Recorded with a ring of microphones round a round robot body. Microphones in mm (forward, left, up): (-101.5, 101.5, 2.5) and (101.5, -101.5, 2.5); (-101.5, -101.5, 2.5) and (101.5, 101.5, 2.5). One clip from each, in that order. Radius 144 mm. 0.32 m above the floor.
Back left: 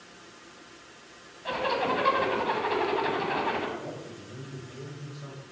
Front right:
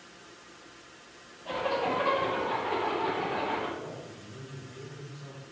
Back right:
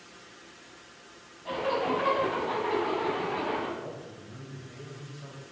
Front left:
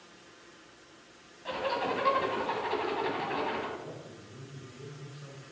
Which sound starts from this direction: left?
A zipper, at 1.4 s.